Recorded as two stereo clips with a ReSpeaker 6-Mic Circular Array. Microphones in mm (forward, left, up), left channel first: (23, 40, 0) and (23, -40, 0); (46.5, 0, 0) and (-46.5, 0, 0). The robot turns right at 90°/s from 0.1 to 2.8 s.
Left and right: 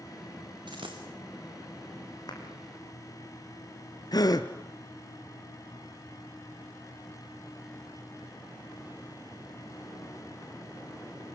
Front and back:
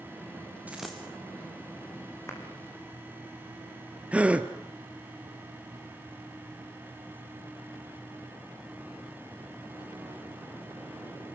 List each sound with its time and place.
0.7 s a dropped coin: 105° right, 3.5 m; by 1.0 s 75° right, 3.5 m
2.3 s a clap: 60° left, 5 m; by 2.4 s 70° left, 5 m
4.1 s a gasp: 105° left, 1.4 m